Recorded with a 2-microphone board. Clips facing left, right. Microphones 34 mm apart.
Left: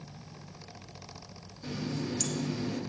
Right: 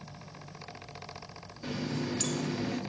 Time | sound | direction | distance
1.6 | a running tap | 30° right (ahead or behind) | 0.6 m